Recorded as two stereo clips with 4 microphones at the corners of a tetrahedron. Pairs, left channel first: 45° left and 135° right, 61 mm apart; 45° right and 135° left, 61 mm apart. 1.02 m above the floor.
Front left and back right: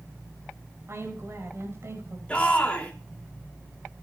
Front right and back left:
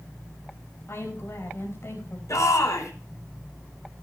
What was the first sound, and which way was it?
A woman speaking, 90° right.